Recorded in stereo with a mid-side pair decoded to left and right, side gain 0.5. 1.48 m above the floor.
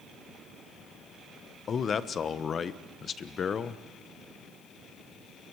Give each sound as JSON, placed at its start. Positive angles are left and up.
{"t": 1.7, "sound": "a man speaking", "azimuth_deg": 45, "distance_m": 1.2}